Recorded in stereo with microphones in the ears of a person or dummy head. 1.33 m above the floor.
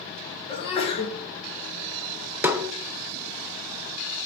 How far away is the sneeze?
About 2 m.